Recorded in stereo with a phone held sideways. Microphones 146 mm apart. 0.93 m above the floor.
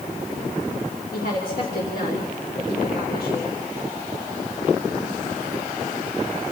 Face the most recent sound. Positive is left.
turn(degrees=75)  # may be behind; listen again after turning